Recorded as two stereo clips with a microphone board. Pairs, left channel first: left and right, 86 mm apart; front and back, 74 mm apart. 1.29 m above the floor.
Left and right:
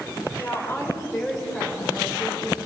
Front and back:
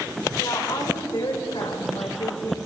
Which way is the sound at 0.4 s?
30° left.